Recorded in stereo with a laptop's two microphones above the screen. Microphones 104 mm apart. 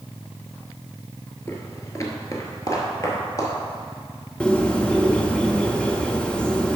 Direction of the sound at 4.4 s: 10° left (ahead or behind).